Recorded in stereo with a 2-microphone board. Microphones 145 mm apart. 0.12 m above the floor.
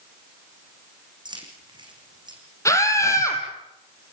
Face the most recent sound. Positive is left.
turn(degrees=20)  # may be behind; listen again after turning